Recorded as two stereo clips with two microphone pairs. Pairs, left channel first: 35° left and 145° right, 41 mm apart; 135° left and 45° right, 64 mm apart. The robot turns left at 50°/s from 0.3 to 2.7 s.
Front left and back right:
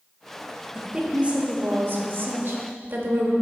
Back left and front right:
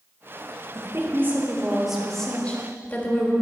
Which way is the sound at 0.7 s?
70° right.